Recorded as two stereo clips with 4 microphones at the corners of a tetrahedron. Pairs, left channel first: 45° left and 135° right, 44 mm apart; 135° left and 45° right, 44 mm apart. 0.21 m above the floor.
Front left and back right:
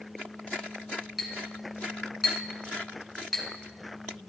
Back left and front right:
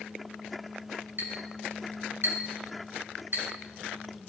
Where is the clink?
45° right, 1.8 m.